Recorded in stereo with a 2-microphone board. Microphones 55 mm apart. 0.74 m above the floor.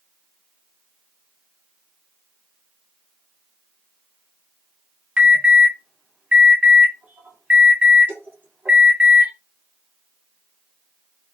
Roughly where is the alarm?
Right.